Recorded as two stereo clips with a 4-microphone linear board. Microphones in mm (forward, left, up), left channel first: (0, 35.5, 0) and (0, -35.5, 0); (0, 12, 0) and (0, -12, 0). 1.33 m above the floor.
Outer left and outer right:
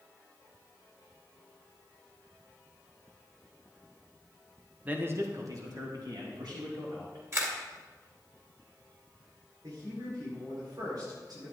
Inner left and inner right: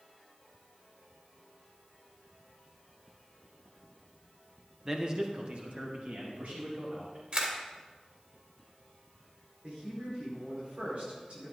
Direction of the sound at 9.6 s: 70° right (ahead or behind).